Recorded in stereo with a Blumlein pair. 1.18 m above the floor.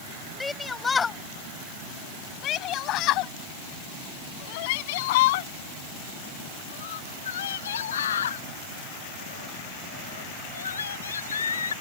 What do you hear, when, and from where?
0.4 s a shout: 10° left; by 11.7 s 70° left